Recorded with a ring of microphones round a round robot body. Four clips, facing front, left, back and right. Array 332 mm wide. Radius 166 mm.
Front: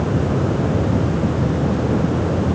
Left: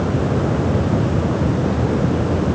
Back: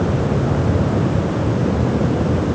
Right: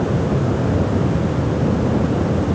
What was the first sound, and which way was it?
Only background noise.